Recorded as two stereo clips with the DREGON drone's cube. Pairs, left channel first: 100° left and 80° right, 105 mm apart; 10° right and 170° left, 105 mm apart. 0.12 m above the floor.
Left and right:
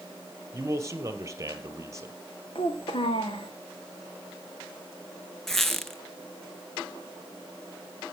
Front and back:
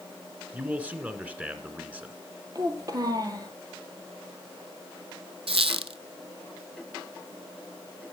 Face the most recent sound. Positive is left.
turn(degrees=-175)